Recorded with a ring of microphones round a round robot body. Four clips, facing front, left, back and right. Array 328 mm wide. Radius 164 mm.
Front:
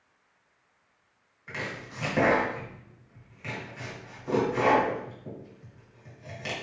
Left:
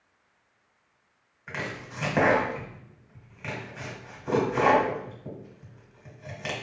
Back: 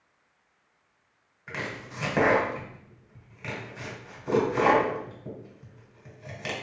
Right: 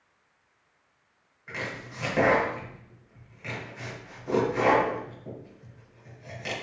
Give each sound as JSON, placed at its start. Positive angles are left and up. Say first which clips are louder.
{"t": 1.5, "sound": "chopping", "louder": "left 1 dB, back 1 dB", "azimuth_deg": 130, "distance_m": 1.5}